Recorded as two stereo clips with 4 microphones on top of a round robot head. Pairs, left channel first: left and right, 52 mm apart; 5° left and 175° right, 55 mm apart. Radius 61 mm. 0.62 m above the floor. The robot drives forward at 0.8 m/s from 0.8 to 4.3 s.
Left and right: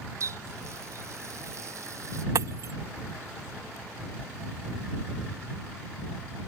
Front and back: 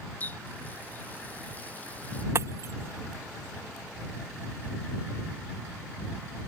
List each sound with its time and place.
0.2 s a running tap: 60° right; by 2.2 s 65° right
2.4 s breaking glass: 130° right